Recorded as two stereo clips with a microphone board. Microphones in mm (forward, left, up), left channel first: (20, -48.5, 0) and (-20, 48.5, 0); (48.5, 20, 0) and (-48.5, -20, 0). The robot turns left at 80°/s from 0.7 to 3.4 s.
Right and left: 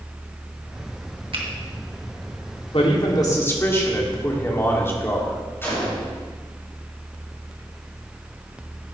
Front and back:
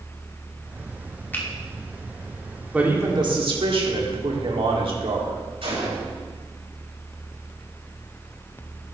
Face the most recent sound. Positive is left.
turn(degrees=-135)